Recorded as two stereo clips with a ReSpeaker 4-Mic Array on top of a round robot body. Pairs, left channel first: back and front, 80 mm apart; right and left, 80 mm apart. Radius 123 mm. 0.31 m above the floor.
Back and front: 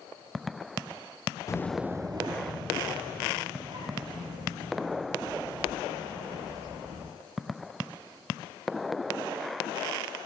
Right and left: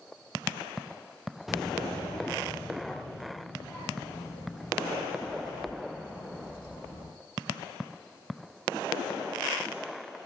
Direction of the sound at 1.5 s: 175° left.